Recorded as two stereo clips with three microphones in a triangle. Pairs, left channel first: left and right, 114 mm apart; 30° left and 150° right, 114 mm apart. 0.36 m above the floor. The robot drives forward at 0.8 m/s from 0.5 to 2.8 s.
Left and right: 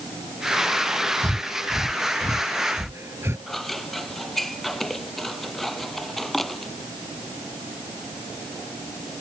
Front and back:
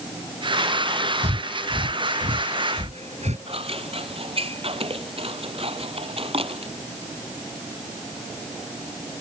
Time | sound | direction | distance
1.2 | breathing | 150° right | ?
3.5 | scissors | straight behind | ?